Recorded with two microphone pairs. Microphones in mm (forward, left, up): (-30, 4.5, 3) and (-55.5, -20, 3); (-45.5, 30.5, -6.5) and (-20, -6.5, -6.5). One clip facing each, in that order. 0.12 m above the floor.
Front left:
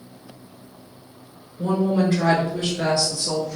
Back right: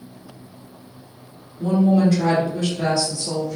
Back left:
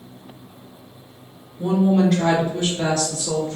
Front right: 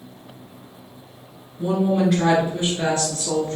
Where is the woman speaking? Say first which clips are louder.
Back right 3 dB, back left 2 dB; 50° left, 1.2 m; by 3.6 s 25° right, 1.5 m.